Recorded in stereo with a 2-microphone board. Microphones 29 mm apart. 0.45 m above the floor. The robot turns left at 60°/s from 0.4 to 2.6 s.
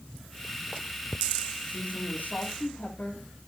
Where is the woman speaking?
125° left, 6.5 m; by 3.2 s 65° left, 6.5 m.